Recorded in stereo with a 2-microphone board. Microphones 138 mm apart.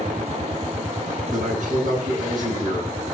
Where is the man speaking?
70° right (ahead or behind), 8 m.